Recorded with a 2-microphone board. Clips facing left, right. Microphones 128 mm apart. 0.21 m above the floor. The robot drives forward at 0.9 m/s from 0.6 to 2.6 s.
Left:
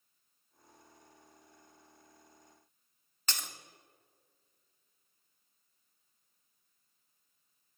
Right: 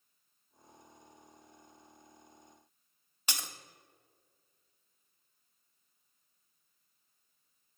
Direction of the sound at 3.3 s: 10° right (ahead or behind).